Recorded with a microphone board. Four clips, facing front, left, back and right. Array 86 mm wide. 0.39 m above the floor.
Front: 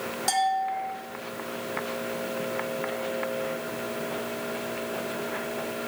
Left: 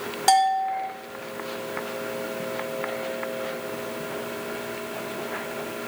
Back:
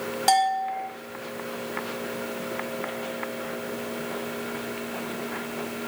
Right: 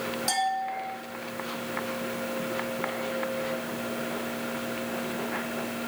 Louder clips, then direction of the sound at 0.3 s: Left 10 dB, back 3 dB; 125° left.